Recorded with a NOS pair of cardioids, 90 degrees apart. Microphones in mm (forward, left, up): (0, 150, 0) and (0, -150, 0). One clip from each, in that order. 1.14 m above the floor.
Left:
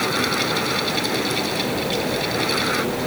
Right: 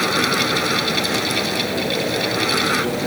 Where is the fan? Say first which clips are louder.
Right 3 dB; 30° right.